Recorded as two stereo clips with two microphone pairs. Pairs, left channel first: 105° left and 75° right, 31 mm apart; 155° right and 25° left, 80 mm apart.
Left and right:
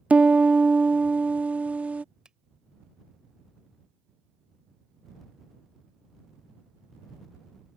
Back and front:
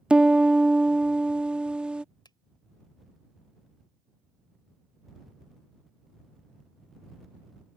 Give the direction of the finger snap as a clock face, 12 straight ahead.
4 o'clock.